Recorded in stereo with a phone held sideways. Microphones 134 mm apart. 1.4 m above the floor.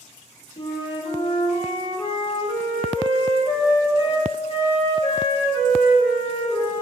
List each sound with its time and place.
0.6 s a flute: 40° left (ahead or behind), 0.5 m